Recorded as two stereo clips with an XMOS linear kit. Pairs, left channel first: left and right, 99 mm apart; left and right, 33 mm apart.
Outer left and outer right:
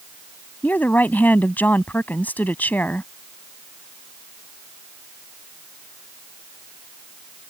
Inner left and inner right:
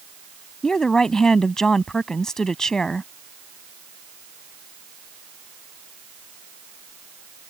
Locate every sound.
0.6 s a woman speaking: 20° left (ahead or behind)